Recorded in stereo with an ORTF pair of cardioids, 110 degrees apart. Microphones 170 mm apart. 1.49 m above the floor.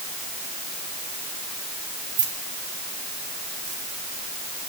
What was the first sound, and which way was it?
Keys jangling, 50° right.